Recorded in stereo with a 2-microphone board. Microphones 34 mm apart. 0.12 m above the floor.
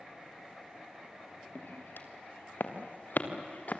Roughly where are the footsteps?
Left.